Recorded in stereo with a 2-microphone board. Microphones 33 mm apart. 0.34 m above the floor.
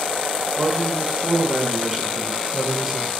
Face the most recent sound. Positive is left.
turn(degrees=-10)  # may be behind; listen again after turning